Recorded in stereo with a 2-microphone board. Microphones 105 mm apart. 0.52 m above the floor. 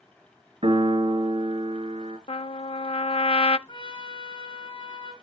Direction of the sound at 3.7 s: 50° left (ahead or behind).